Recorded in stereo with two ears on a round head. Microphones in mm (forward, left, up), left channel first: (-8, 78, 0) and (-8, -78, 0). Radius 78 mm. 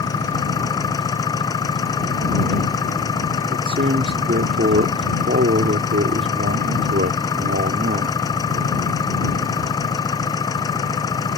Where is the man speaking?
55° right (ahead or behind).